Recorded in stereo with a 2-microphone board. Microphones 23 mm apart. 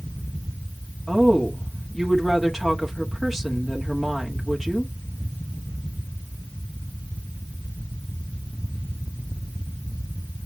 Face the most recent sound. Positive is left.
turn(degrees=15)  # may be behind; listen again after turning